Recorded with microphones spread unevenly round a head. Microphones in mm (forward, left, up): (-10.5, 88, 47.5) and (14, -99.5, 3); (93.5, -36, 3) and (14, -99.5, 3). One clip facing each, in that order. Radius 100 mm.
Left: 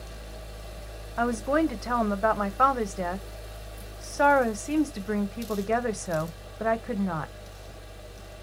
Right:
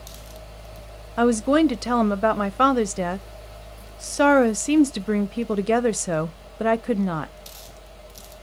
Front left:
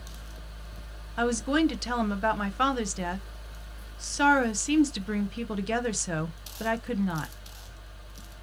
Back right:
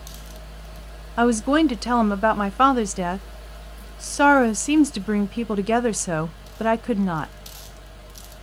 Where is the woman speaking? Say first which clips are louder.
Right 7 dB, back right 7 dB; 105° right, 0.5 m.